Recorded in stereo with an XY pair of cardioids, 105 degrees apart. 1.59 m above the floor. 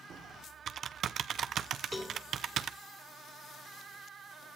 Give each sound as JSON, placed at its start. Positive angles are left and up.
{"t": 0.1, "sound": "typing on a keyboard", "azimuth_deg": -65, "distance_m": 0.8}
{"t": 1.9, "sound": "a cowbell", "azimuth_deg": 15, "distance_m": 3.0}